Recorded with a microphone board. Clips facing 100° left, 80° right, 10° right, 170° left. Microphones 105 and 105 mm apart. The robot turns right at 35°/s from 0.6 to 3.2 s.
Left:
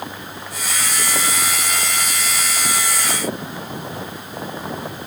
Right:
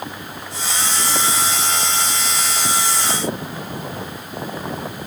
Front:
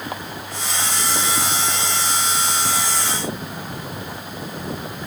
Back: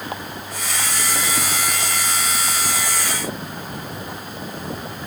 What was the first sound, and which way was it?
Only background noise.